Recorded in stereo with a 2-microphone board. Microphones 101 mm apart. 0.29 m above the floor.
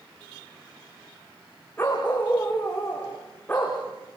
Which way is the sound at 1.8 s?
20° left (ahead or behind).